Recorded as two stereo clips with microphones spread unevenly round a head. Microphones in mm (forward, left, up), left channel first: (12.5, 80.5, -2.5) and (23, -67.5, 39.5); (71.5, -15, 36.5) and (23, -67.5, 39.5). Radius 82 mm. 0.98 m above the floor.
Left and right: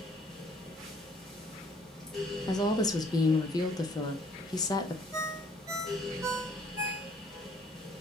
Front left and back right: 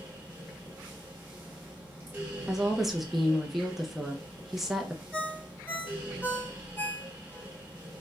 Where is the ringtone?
20° right, 1.7 m.